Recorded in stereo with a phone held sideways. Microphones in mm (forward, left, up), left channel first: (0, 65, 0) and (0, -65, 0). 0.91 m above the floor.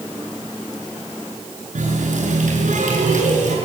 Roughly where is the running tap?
Right.